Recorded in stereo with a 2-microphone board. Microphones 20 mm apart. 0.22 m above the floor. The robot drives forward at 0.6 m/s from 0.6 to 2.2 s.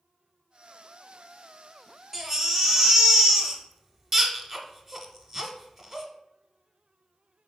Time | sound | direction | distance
2.1 | a baby crying | 10° right (ahead or behind) | 0.5 m